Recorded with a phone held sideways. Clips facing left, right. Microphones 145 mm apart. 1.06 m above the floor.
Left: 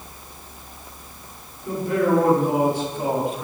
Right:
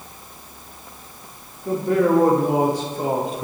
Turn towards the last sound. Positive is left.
turn(degrees=-40)  # may be behind; listen again after turning